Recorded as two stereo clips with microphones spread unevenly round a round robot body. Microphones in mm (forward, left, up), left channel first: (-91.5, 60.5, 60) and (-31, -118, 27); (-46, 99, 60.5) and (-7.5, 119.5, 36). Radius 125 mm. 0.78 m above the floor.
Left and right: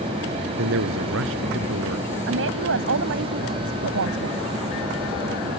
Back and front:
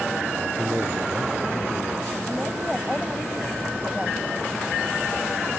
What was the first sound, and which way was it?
A man speaking, 50° right.